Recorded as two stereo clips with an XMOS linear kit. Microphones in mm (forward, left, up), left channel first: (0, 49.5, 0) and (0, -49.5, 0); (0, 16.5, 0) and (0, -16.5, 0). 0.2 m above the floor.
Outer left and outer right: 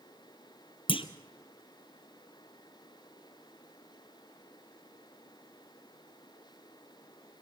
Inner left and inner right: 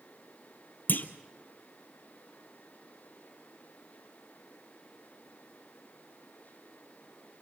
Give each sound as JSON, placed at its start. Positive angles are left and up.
{"t": 0.9, "sound": "a clunk", "side_deg": 70, "distance_m": 1.1}